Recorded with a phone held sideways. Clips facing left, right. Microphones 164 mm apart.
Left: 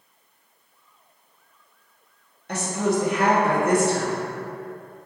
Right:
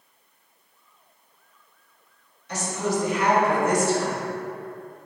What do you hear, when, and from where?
2.5 s a woman speaking: 55° left (ahead or behind), 1.3 m